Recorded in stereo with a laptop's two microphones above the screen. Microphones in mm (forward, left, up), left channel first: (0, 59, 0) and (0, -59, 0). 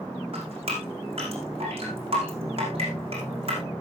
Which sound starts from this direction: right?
Dripping, at 0.3 s.